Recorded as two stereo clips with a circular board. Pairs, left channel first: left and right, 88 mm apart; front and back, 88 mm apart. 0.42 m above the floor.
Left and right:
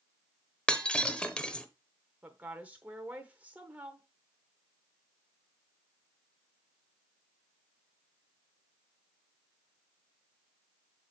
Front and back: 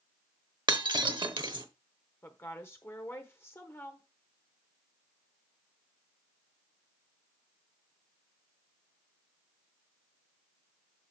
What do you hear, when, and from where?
0.7 s breaking glass: 170° left, 0.9 m
2.2 s a woman speaking: 30° right, 0.9 m